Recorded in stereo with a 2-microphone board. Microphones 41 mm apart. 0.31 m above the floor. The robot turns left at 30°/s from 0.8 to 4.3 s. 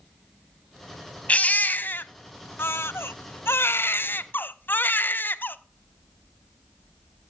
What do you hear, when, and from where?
1.3 s a baby crying: 145° left, 0.6 m; by 5.6 s 55° left, 0.6 m